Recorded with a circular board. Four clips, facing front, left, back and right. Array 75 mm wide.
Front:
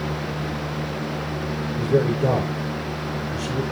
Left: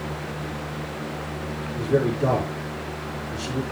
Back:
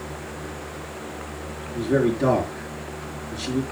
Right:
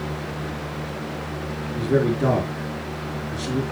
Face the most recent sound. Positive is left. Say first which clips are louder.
# right 1 dB, even
turn(degrees=-140)